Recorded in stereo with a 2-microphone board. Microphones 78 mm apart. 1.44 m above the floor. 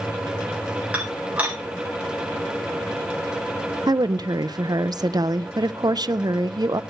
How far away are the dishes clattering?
About 7 m.